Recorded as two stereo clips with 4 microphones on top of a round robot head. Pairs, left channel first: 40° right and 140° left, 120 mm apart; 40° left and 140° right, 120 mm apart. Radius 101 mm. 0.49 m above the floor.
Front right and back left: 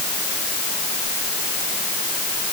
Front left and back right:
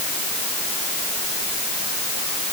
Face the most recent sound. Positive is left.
No sound to turn to.